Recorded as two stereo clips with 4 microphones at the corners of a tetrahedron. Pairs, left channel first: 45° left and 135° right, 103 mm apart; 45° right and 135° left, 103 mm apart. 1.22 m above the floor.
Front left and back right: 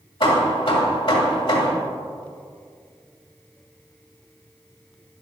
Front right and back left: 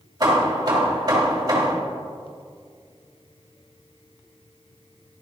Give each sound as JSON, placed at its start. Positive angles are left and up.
{"t": 0.2, "sound": "hammering", "azimuth_deg": 85, "distance_m": 2.0}